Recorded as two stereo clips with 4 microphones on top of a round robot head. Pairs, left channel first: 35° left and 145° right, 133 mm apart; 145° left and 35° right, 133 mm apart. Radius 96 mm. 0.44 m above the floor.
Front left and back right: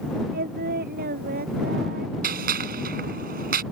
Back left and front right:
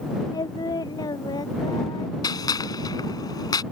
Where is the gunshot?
155° right.